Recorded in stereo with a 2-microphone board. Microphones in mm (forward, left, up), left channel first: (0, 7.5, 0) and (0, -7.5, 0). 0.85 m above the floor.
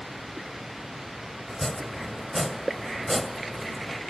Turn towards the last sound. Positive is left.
turn(degrees=15)  # may be behind; listen again after turning